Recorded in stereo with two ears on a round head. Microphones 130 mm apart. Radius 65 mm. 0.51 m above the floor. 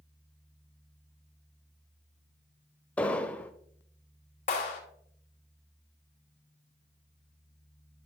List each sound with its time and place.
3.0 s an explosion: 10° left (ahead or behind), 0.6 m
4.5 s a clap: 50° left (ahead or behind), 2.5 m